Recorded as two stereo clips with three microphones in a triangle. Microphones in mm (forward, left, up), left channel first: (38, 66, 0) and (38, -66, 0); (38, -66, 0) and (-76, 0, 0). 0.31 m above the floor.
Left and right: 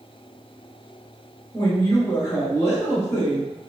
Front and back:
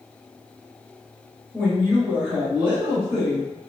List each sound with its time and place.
1.5 s a woman speaking: 105° left, 1.0 m